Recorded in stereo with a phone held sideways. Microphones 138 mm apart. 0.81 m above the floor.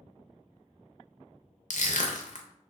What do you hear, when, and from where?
1.7 s crushing: 60° left (ahead or behind), 0.5 m